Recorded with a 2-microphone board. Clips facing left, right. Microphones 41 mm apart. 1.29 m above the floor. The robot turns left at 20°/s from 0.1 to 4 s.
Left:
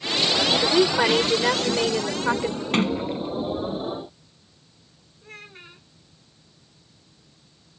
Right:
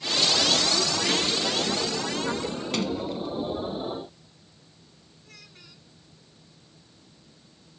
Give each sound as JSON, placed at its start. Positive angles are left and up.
{"t": 0.6, "sound": "a woman speaking", "azimuth_deg": 75}
{"t": 2.7, "sound": "a sliding door", "side_deg": 40}
{"t": 5.2, "sound": "a child speaking", "side_deg": 40}